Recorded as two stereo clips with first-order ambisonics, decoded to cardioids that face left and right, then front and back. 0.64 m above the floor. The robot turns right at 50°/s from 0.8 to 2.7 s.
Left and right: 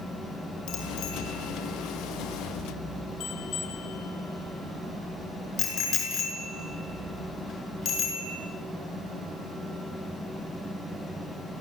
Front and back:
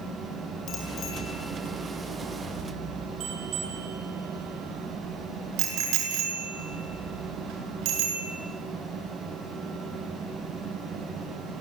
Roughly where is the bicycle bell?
Ahead left.